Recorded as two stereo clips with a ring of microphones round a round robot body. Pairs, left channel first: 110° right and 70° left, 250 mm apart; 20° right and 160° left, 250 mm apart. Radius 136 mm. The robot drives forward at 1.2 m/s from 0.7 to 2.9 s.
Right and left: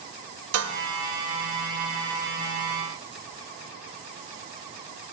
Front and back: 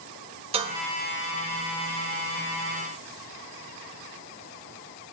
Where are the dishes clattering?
90° left, 1.3 m; by 0.8 s 100° left, 1.3 m.